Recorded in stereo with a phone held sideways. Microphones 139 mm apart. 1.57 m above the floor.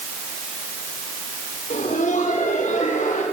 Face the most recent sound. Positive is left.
turn(degrees=70)  # may be behind; listen again after turning